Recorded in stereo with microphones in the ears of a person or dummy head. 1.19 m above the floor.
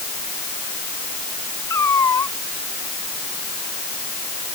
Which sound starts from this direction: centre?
A cat meowing, at 1.7 s.